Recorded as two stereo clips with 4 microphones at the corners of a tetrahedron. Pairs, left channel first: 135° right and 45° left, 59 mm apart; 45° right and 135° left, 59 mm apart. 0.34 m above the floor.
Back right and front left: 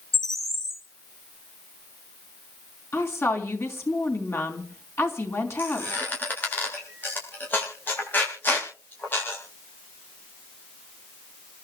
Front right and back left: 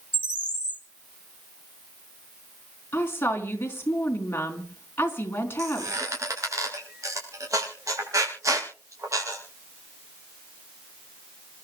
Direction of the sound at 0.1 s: 75° left.